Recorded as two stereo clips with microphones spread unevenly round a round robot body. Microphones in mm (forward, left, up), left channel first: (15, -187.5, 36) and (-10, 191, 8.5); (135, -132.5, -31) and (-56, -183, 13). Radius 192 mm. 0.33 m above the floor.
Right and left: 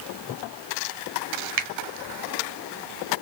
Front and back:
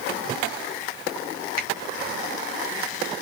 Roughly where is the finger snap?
Ahead left.